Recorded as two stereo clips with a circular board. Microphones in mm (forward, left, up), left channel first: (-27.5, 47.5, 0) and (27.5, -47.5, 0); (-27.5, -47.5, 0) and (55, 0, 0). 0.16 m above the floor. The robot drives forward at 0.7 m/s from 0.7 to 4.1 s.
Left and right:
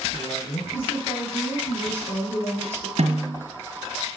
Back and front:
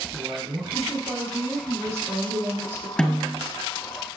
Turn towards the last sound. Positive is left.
turn(degrees=-100)